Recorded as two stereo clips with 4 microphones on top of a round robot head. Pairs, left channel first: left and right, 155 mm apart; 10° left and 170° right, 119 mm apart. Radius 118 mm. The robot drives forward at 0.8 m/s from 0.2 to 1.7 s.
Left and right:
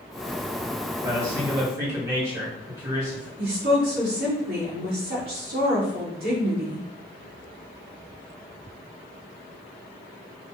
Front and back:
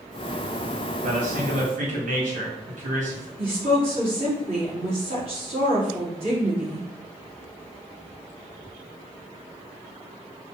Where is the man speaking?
160° right, 2.5 m; by 3.3 s 165° right, 3 m.